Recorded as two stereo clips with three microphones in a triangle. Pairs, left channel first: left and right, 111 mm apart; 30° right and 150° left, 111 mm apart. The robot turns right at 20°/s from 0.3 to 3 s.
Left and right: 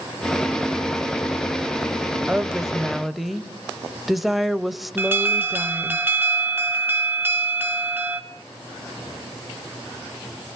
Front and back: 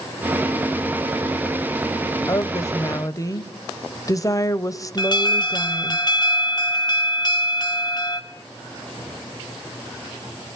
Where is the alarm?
30° right, 2 m.